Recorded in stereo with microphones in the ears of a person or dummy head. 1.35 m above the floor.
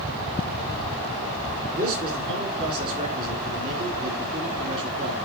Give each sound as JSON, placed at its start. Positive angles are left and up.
{"t": 1.8, "sound": "a man speaking", "side_deg": -30, "distance_m": 3.5}